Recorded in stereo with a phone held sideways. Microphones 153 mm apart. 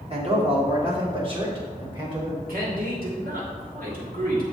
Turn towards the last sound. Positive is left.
turn(degrees=-75)  # may be behind; listen again after turning